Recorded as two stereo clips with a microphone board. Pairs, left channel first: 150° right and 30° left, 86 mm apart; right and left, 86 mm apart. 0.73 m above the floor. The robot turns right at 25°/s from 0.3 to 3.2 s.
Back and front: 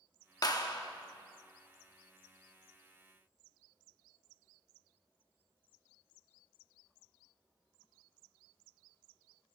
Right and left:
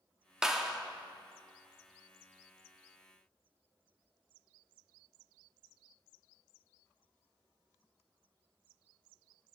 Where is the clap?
170° left, 0.8 m; by 0.8 s straight behind, 0.8 m.